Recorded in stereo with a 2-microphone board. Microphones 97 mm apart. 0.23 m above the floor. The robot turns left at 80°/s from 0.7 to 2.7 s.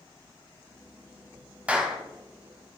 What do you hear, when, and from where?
1.7 s a clap: 15° right (ahead or behind), 1.1 m; by 2.0 s centre (ahead or behind), 1.1 m